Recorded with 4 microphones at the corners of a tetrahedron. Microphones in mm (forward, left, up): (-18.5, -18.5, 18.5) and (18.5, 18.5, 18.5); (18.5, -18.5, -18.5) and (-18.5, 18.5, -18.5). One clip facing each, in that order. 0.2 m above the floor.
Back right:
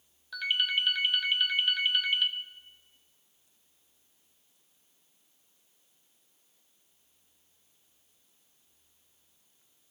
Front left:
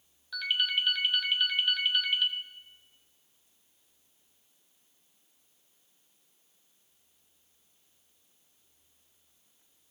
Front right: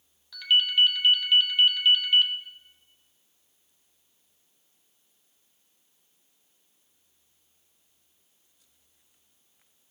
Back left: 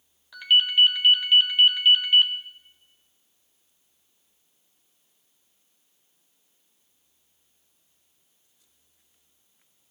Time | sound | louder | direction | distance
0.3 | a ringtone | back right 1 dB, back left 3 dB | 150° left | 0.9 m